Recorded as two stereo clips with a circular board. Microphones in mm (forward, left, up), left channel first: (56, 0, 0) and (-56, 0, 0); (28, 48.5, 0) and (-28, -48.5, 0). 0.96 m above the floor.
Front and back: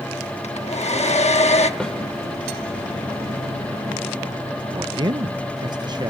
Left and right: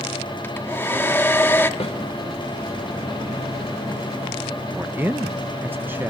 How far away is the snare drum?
About 3.5 m.